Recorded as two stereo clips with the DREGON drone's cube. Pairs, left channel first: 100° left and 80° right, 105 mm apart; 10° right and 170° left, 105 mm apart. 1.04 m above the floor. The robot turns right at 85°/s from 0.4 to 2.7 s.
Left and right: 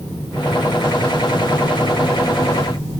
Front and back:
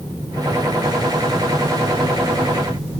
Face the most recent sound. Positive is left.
No sound to turn to.